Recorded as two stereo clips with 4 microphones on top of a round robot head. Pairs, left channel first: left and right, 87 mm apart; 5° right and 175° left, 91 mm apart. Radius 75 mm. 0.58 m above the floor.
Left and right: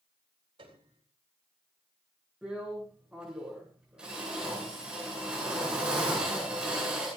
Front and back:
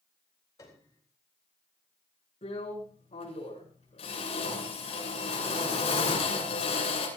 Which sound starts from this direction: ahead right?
A piano, at 0.6 s.